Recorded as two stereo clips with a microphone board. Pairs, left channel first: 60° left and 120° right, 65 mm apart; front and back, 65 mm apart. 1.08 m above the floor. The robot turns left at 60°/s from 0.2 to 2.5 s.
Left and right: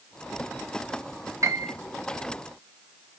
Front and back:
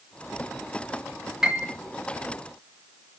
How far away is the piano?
About 0.6 m.